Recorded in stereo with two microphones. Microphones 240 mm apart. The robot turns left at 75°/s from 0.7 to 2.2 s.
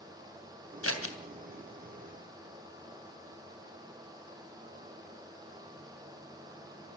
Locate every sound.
0.8 s scissors: 70° left (ahead or behind), 2.5 m; by 1.2 s 60° left (ahead or behind), 2.5 m